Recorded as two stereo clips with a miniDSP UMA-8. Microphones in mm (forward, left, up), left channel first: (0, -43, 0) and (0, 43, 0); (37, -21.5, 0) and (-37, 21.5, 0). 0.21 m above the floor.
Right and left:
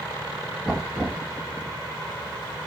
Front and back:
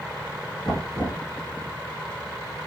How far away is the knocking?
About 1.9 m.